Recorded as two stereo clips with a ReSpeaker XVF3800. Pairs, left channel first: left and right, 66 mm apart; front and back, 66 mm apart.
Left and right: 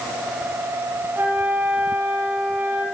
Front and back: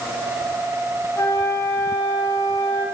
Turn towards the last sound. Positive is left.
turn(degrees=-30)